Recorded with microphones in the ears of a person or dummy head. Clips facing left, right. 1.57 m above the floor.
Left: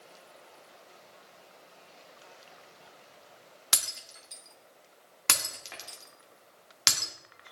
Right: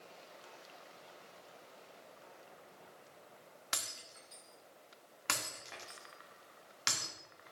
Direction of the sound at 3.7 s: 60° left (ahead or behind).